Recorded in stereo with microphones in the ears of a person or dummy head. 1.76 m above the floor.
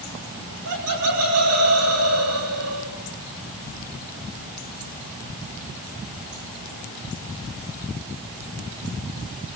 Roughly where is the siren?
No siren in this recording.